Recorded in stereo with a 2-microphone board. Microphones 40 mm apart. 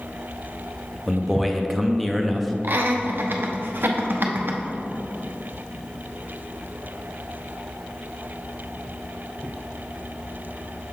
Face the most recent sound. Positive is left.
turn(degrees=-65)  # may be behind; listen again after turning